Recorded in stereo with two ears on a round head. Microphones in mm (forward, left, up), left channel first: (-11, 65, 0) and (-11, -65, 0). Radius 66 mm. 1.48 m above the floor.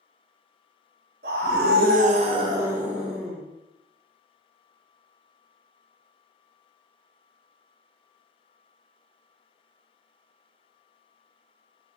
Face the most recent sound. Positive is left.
turn(degrees=5)  # may be behind; listen again after turning